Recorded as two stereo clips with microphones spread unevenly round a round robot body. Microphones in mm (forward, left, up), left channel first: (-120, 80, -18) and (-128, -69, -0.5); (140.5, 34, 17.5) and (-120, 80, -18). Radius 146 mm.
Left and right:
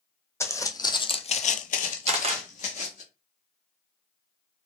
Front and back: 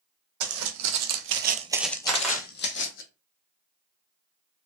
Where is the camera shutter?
110° right, 0.8 m.